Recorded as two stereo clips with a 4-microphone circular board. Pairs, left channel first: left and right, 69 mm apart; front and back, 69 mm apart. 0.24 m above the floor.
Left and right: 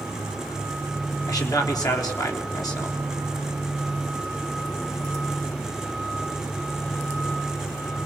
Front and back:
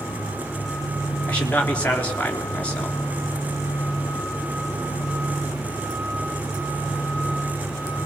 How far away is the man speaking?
About 3.5 m.